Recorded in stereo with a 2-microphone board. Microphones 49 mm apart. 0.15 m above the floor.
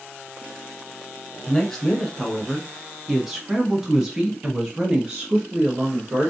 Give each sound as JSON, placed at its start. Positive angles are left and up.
{"t": 1.5, "sound": "a woman speaking", "side_deg": 10, "distance_m": 1.6}